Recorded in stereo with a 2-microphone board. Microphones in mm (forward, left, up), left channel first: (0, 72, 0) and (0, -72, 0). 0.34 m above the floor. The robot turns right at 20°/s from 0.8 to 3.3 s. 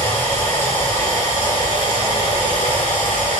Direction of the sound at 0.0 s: 20° left.